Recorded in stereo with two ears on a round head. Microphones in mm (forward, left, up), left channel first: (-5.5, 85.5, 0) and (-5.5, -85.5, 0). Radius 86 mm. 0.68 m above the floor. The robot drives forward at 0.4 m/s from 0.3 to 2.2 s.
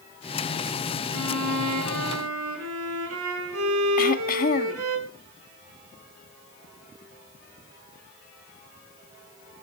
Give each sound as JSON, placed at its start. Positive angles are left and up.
{"t": 1.1, "sound": "a violin", "side_deg": -85, "distance_m": 4.5}
{"t": 4.0, "sound": "throat clearing", "side_deg": 45, "distance_m": 1.3}